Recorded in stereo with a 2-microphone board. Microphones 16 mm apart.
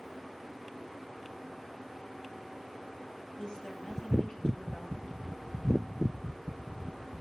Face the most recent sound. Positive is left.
turn(degrees=80)